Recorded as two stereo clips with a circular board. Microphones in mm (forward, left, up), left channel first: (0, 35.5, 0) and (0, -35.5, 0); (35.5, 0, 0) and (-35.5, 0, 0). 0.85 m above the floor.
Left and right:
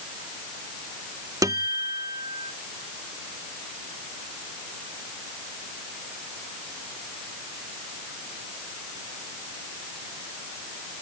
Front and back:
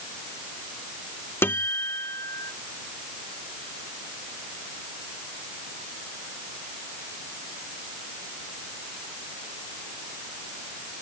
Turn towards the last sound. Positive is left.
turn(degrees=-60)